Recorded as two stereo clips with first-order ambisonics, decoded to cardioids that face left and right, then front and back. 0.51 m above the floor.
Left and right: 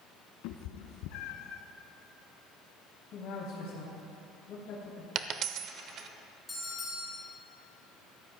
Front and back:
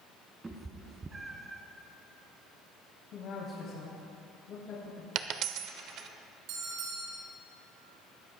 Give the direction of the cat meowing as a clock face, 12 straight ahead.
9 o'clock.